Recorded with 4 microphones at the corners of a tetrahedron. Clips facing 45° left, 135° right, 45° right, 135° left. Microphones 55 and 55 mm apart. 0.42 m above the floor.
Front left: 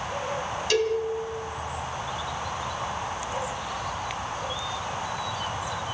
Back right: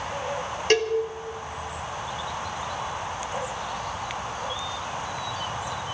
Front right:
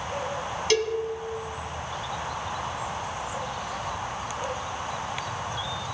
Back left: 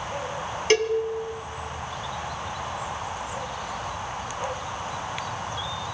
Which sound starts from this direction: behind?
A cowbell, at 0.7 s.